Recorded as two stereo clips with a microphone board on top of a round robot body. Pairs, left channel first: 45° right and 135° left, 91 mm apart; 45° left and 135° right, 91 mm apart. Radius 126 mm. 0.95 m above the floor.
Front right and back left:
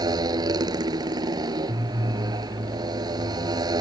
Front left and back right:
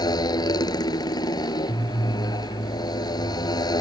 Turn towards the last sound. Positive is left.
turn(degrees=90)